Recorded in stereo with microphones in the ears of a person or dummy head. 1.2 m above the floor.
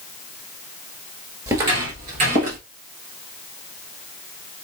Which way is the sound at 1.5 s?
20° right (ahead or behind).